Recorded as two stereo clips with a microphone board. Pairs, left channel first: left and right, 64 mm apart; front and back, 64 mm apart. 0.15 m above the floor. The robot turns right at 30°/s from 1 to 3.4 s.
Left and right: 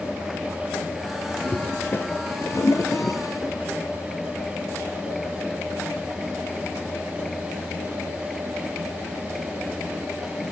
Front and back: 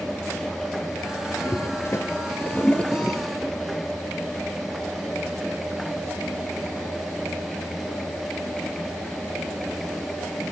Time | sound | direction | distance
1.4 | a toilet flushing | 30° left | 0.8 m